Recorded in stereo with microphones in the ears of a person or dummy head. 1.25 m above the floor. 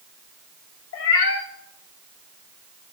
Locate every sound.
0.9 s a cat meowing: 55° left (ahead or behind), 1.2 m